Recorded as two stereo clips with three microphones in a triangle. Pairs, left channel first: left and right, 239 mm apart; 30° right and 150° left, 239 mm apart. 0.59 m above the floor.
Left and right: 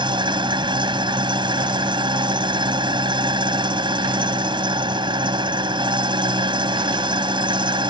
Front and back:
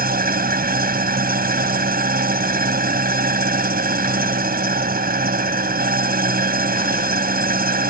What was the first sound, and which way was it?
An engine running, 160° right.